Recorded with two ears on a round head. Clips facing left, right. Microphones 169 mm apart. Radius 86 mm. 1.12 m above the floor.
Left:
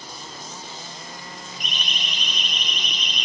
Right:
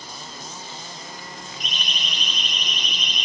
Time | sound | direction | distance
1.6 | a siren | 30° right (ahead or behind) | 9 m